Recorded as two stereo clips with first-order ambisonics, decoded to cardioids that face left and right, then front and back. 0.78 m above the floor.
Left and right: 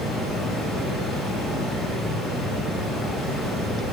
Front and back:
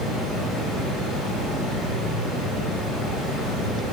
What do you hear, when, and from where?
0.0 s running water: 5° left, 5 m